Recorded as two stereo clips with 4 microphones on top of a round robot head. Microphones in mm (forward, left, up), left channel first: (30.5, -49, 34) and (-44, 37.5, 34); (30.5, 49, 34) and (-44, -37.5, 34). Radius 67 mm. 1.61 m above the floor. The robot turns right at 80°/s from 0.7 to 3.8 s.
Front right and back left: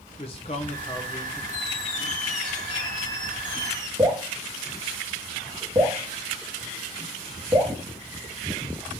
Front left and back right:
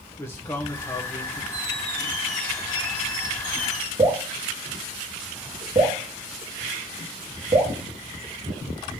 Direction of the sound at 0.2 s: 20° right.